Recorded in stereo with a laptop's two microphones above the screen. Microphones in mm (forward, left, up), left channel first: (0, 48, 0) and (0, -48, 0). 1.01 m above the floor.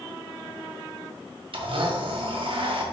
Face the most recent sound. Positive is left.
turn(degrees=-65)  # may be behind; listen again after turning